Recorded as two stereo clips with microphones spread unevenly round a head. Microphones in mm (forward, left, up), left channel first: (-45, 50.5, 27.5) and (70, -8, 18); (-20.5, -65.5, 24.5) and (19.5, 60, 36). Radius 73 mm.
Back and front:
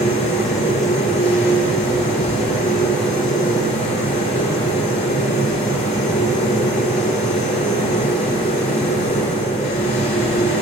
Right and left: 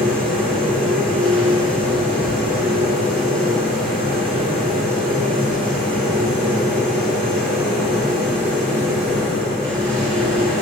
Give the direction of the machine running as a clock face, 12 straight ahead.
6 o'clock.